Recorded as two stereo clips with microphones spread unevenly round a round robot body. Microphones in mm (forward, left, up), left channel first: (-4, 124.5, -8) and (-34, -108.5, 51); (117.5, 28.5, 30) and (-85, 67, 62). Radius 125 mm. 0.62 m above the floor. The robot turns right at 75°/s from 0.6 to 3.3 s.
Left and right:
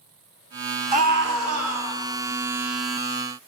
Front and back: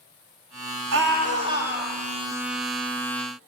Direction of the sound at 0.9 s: 165° right.